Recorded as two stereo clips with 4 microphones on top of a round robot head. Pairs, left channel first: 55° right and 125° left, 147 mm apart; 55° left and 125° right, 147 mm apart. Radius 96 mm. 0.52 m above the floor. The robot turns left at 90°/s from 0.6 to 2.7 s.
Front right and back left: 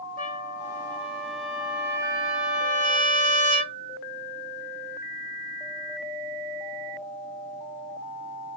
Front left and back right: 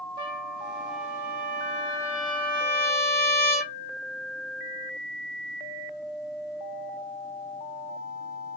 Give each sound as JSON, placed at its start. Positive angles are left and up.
{"t": 0.2, "sound": "a trumpet", "azimuth_deg": -70, "distance_m": 2.0}